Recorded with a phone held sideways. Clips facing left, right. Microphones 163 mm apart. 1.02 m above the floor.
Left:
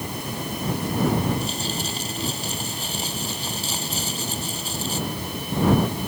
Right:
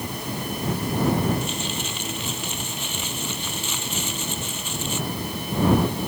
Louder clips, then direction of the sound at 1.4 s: Left 1 dB; 35° left (ahead or behind).